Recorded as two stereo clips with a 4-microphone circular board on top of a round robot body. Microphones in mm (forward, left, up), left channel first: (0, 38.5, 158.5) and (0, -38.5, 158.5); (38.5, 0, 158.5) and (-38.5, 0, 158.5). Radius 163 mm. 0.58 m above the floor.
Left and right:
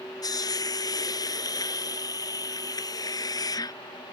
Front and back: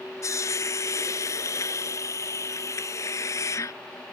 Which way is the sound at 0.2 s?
50° left.